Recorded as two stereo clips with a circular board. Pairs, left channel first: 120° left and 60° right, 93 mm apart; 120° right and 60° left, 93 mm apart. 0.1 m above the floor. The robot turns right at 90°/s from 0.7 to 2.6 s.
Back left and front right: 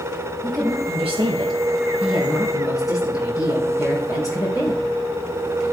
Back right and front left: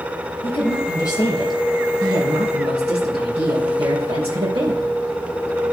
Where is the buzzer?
I don't hear a buzzer.